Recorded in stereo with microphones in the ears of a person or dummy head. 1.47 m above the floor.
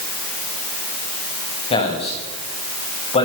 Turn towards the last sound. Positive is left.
turn(degrees=30)  # may be behind; listen again after turning